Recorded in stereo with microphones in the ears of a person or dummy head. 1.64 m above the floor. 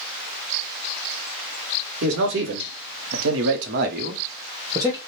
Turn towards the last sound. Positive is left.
turn(degrees=-10)  # may be behind; listen again after turning